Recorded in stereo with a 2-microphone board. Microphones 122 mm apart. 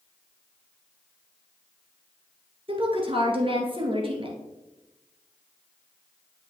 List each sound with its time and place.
2.7 s a woman speaking: 45° right (ahead or behind), 1.4 m